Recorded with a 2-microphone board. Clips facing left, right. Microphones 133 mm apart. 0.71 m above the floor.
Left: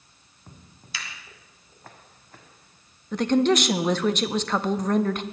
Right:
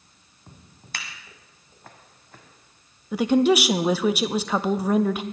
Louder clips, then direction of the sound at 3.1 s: Right 2 dB; 10° right (ahead or behind).